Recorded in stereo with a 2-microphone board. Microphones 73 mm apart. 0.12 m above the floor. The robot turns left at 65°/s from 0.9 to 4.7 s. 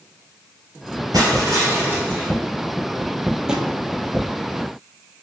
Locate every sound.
1.1 s crushing: 95° right, 2.5 m; by 2.3 s 170° right, 2.5 m
3.5 s a drawer: 5° right (ahead or behind), 0.9 m; by 3.7 s 20° right (ahead or behind), 0.9 m